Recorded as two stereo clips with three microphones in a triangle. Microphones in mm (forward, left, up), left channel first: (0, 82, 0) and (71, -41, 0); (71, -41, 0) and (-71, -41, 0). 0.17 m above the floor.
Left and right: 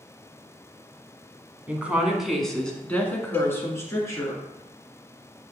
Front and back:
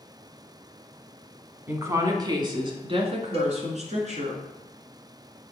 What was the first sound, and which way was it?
A woman speaking, 125° right.